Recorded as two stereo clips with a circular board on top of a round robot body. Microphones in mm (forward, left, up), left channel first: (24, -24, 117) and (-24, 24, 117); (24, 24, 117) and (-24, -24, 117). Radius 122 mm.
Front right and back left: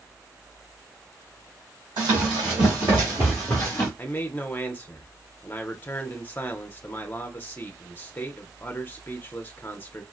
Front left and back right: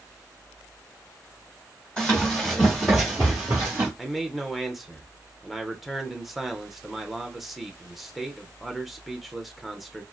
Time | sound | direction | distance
2.0 | running footsteps | 120° left | 1.6 m
4.0 | a man speaking | 50° right | 0.7 m